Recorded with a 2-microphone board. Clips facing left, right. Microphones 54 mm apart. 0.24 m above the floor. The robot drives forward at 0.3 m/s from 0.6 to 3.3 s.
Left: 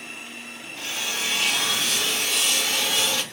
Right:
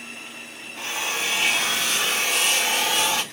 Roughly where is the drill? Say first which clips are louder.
Right 3 dB; right.